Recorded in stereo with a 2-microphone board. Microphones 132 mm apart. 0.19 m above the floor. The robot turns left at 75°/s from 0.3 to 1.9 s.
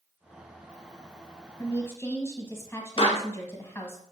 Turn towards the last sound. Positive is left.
turn(degrees=40)  # may be behind; listen again after turning